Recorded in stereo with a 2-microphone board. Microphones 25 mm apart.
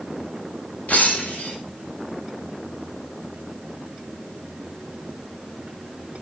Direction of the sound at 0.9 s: 75° left (ahead or behind).